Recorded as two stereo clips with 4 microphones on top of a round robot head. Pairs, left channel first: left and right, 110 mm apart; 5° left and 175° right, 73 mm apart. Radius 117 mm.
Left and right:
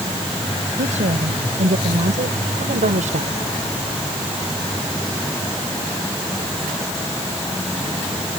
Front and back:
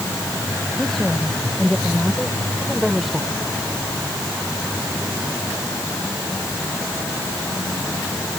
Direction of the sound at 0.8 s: 80° right.